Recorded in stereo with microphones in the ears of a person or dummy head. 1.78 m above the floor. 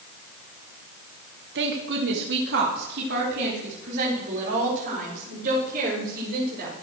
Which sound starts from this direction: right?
A woman speaking, at 1.6 s.